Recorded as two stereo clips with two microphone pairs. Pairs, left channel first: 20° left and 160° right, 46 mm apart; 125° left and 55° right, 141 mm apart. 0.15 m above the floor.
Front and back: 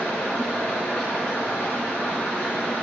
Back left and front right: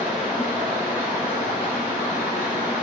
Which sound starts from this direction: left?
Running water, at 0.0 s.